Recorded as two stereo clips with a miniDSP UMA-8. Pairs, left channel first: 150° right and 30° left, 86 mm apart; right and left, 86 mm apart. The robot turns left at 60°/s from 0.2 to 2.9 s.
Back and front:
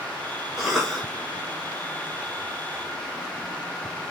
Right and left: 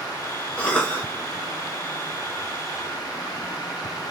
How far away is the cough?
About 1.6 m.